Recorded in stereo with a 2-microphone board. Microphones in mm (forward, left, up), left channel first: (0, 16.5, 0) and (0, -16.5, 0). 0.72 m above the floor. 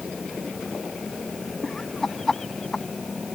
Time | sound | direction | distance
1.6 | laughter | 15° left (ahead or behind) | ?